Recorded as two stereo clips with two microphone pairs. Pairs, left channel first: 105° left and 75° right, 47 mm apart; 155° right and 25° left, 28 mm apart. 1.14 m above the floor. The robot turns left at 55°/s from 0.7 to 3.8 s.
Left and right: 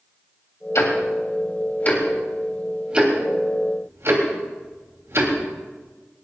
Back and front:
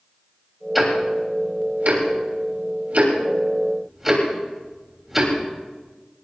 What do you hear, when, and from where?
0.8 s ticking: 110° left, 3 m; by 5.3 s 55° right, 3 m